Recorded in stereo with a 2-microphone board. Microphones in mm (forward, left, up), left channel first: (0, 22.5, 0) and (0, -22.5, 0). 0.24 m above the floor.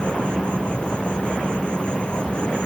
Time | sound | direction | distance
0.0 | an insect | 25° left (ahead or behind) | ?